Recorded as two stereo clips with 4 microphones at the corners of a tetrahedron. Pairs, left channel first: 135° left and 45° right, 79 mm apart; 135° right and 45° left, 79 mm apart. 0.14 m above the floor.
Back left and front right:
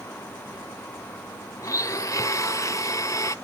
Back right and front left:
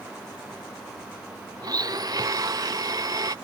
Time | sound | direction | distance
1.6 | a blender | 85° left | ?